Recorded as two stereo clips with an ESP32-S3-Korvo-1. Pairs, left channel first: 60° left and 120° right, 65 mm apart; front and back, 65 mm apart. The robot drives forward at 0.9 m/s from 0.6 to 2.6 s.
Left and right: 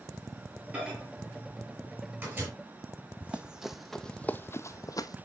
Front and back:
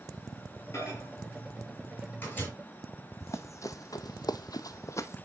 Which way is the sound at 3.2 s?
50° right.